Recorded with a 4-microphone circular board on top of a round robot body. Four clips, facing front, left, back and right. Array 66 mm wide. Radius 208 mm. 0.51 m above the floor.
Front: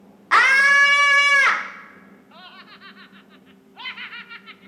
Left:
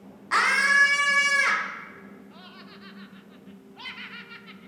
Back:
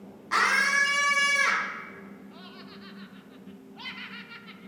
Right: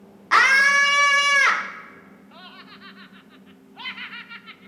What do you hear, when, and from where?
0.3 s a scream: 20° right, 1.2 m
2.3 s laughter: 30° right, 0.9 m